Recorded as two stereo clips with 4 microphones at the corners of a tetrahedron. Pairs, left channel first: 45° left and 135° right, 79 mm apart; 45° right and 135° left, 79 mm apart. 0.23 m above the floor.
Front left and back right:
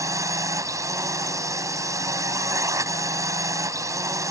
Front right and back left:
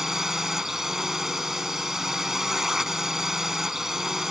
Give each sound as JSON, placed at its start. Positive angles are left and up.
{"t": 0.0, "sound": "a drone", "azimuth_deg": -140}